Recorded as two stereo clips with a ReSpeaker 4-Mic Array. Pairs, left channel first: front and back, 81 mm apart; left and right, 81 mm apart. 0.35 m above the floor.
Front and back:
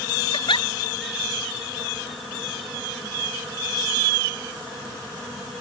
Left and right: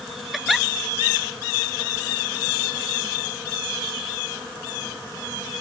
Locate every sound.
0.3 s a giggle: straight ahead